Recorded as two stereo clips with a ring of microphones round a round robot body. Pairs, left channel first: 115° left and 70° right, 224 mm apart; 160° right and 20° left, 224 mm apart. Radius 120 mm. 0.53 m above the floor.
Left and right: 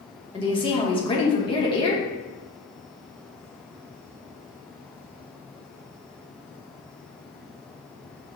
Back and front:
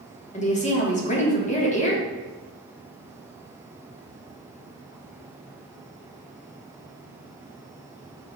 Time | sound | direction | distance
0.3 | a woman speaking | 170° left | 1.0 m